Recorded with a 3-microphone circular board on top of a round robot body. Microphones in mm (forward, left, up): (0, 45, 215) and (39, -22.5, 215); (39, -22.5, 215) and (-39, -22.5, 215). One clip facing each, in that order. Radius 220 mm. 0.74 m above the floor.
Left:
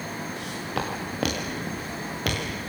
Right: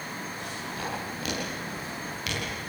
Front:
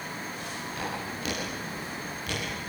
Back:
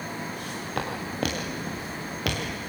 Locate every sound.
0.4 s footsteps: 145° left, 6 m; by 2.5 s 165° left, 5 m